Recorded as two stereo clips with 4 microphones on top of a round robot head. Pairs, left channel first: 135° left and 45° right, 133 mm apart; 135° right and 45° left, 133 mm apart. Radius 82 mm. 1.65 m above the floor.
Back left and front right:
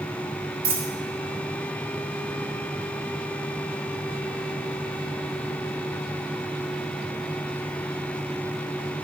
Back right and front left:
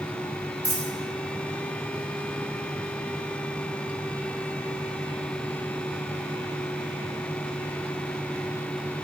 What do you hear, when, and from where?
0.6 s a dropped coin: 30° right, 1.8 m